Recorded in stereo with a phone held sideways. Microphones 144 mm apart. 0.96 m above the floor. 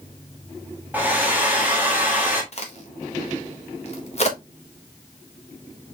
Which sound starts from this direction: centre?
A hair dryer, at 0.9 s.